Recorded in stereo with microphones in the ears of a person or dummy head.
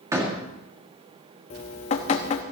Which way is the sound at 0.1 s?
15° right (ahead or behind).